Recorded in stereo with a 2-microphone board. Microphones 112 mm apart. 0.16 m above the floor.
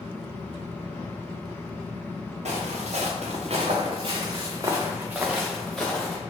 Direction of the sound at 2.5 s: 75° right (ahead or behind).